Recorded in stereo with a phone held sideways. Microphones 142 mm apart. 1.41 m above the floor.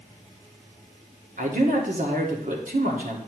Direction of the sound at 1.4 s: 65° right (ahead or behind).